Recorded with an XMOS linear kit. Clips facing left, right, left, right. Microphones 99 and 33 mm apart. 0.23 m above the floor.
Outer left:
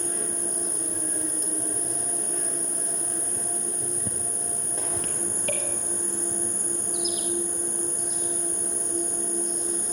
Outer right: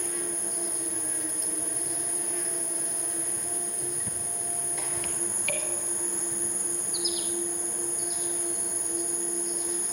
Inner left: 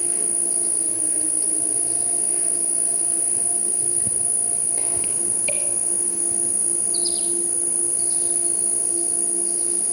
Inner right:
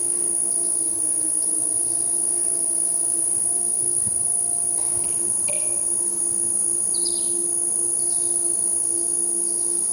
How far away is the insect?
About 2.5 m.